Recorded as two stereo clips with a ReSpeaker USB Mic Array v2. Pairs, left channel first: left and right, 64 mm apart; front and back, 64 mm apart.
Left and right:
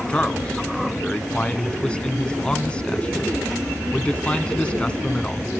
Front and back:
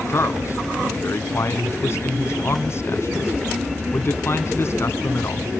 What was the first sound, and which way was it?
A man speaking, 25° left.